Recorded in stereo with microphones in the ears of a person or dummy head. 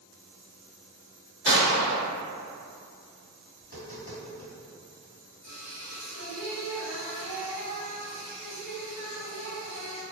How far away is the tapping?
About 1.6 m.